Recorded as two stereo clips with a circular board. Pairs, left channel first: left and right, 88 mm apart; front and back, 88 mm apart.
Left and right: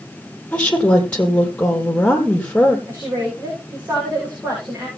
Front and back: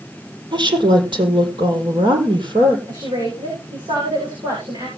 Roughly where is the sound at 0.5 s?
Behind.